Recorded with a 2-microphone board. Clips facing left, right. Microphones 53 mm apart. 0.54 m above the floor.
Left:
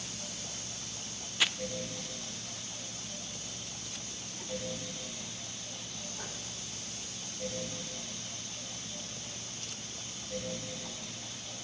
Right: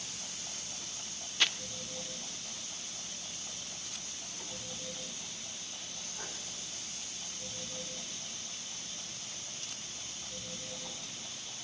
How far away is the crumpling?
About 0.6 m.